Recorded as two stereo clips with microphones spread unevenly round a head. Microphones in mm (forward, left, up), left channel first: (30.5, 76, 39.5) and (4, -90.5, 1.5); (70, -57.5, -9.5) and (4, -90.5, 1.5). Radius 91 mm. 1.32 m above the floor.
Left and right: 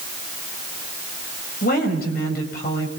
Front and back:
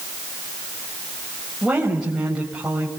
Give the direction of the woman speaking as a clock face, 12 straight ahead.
8 o'clock.